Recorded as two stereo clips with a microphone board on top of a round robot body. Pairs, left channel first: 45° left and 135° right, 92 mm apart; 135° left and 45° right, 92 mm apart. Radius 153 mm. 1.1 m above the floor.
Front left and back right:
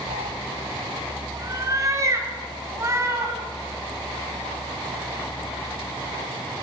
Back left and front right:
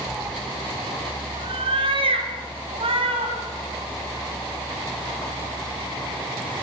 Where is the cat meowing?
150° right, 0.5 m; by 3.3 s 70° right, 5 m.